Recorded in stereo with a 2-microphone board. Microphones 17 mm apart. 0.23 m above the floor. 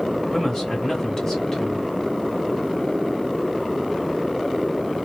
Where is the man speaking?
35° left (ahead or behind), 1.9 m.